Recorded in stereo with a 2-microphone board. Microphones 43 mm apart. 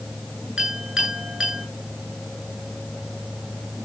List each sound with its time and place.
0.6 s a clink: 10° right (ahead or behind), 7 m